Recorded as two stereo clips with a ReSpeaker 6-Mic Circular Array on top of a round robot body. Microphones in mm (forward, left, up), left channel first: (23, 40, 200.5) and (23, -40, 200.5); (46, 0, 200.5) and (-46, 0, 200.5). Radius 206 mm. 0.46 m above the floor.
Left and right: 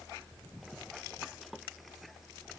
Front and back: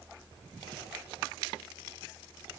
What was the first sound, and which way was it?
Only background noise.